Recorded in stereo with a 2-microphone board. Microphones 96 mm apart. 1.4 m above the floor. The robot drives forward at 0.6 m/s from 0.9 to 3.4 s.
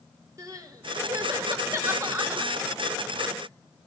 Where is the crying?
35° right (ahead or behind), 2.5 m; by 3.3 s 20° right (ahead or behind), 3.5 m.